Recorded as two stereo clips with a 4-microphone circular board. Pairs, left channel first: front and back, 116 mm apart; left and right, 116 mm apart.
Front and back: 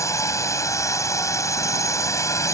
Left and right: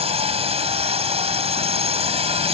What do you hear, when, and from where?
0.0 s a drone: 65° right